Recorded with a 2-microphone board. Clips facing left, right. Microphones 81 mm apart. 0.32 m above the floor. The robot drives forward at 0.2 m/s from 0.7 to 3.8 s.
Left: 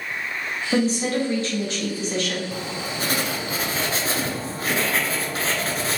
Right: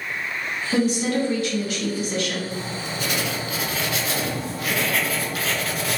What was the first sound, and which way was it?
A woman speaking, 35° left (ahead or behind).